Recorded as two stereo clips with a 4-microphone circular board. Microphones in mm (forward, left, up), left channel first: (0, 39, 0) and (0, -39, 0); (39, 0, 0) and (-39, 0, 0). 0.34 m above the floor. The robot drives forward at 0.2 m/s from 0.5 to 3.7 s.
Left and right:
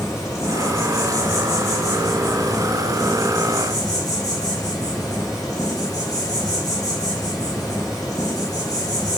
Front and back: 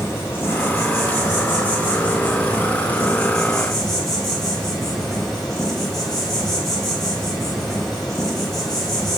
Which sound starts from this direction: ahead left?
An insect, at 0.0 s.